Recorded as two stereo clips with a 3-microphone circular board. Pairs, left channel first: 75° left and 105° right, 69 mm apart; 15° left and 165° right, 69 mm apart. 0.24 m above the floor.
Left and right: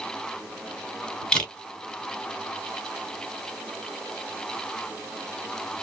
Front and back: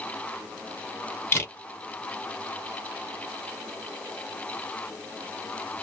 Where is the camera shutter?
10° left, 1.8 m.